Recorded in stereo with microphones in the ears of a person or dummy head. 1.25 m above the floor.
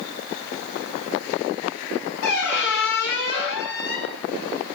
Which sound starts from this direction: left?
A squeak, at 2.2 s.